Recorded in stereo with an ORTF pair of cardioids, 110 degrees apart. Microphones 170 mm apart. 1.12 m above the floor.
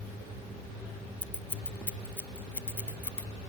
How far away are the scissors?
About 0.5 m.